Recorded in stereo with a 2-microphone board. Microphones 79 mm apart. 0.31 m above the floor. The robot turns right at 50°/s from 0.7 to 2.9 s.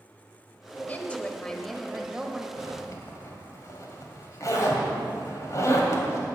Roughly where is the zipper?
Left.